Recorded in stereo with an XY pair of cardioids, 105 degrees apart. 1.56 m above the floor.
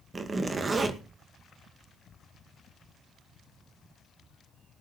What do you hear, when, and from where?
0.1 s a zipper: 35° right, 2 m